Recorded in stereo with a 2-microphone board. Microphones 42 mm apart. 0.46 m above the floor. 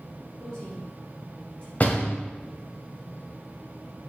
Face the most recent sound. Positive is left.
turn(degrees=40)  # may be behind; listen again after turning